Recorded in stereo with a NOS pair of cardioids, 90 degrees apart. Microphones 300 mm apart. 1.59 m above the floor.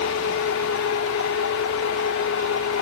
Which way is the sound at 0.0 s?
55° left.